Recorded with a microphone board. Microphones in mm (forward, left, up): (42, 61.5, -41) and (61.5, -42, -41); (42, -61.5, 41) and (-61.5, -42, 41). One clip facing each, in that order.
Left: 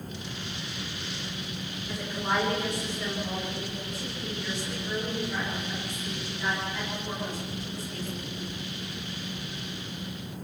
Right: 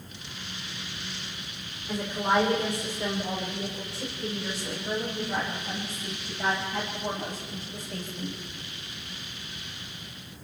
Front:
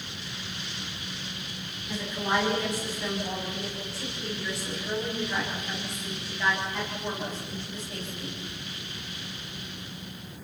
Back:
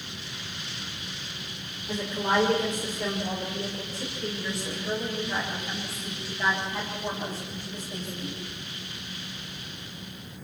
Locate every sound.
1.9 s a woman speaking: 150° right, 5 m; by 8.4 s 120° right, 8.5 m